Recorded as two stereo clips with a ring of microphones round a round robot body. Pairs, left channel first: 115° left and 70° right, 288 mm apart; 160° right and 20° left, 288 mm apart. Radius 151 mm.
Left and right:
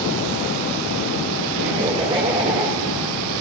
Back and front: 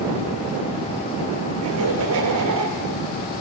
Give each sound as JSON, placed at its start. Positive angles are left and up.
{"t": 1.6, "sound": "laughter", "azimuth_deg": 0, "distance_m": 2.5}